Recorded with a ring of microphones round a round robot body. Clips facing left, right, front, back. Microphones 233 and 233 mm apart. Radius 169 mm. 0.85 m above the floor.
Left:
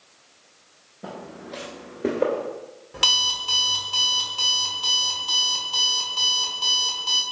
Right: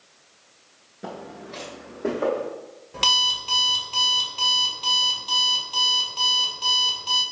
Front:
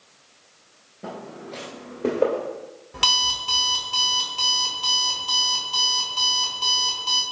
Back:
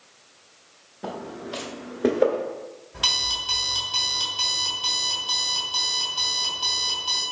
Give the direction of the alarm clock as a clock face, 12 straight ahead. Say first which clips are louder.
Right 2 dB, front 3 dB; 12 o'clock.